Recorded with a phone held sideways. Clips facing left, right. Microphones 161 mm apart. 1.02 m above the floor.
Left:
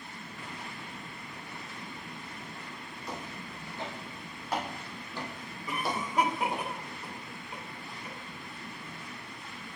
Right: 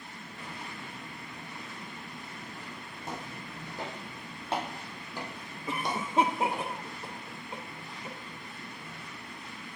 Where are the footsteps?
50° right (ahead or behind), 2.5 m; by 6.7 s 20° left (ahead or behind), 1.8 m.